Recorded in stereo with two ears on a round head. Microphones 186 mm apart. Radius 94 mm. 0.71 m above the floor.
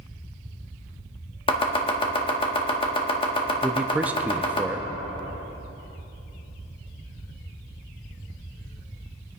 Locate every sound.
1.5 s chopping: 25° left (ahead or behind), 1.6 m
3.6 s a man speaking: 10° right (ahead or behind), 0.5 m